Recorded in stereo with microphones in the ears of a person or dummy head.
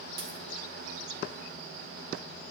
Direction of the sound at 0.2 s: 25° right (ahead or behind).